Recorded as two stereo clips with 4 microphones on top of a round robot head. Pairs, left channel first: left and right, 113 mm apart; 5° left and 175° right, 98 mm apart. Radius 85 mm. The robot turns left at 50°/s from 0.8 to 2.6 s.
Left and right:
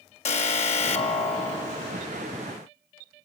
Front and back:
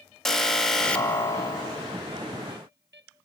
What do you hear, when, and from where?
0.2 s an alarm: 90° left, 2.5 m; by 2.1 s 25° left, 2.5 m